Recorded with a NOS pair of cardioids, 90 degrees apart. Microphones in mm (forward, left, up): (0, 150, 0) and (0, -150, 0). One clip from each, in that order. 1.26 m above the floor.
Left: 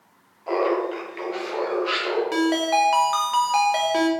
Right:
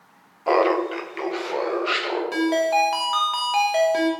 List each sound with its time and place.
0.5 s laughter: 45° right, 0.6 m; by 2.2 s 15° right, 1.5 m
2.3 s a ringtone: 15° left, 0.8 m